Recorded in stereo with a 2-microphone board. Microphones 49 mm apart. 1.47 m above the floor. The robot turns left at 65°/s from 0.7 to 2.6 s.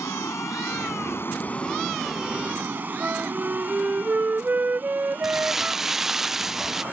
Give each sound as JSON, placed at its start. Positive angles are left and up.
{"t": 0.0, "sound": "running water", "azimuth_deg": 85}
{"t": 3.0, "sound": "a flute", "side_deg": -40}
{"t": 5.2, "sound": "crumpling", "side_deg": -10}